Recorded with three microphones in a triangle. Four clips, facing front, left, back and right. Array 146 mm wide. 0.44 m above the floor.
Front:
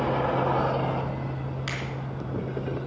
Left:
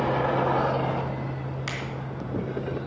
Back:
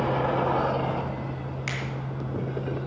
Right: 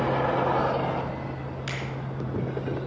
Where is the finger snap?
95° left, 3 m.